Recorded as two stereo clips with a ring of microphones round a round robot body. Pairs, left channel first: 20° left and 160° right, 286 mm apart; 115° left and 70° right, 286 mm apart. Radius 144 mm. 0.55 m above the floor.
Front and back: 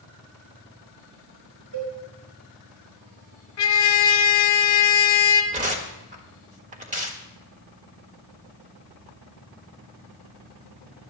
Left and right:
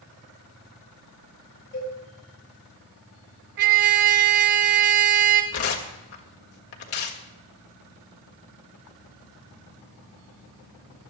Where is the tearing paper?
140° left, 1.6 m.